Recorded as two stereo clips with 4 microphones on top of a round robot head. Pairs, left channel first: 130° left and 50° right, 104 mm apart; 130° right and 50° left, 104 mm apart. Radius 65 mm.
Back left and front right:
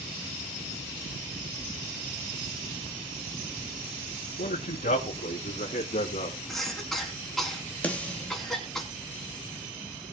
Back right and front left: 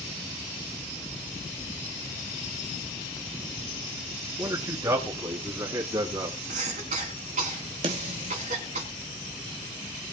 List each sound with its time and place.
4.4 s a man speaking: 115° left, 5 m; by 6.4 s 100° left, 4 m
6.5 s a cough: 40° left, 5 m
7.8 s a snare drum: 55° left, 3.5 m